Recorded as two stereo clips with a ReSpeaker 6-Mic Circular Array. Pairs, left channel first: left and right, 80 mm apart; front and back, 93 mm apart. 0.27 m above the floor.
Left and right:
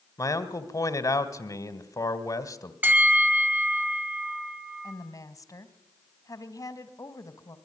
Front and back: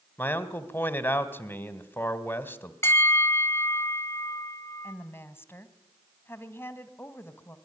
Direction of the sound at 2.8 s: 40° right.